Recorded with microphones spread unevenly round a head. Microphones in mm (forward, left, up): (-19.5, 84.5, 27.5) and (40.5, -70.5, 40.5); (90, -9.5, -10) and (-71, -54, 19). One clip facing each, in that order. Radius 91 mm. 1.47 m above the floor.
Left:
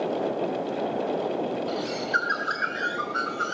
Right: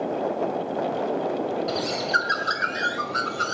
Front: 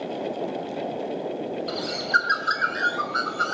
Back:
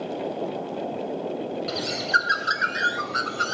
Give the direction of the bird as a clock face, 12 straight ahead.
4 o'clock.